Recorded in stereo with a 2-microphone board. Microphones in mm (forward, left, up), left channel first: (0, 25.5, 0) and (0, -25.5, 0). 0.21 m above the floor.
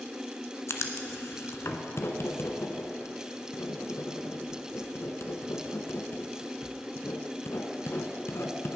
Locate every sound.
0.7 s writing: 60° left (ahead or behind), 1.1 m